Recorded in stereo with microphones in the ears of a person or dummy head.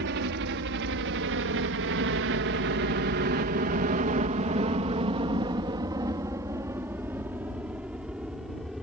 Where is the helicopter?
55° right (ahead or behind); by 8.8 s centre (ahead or behind).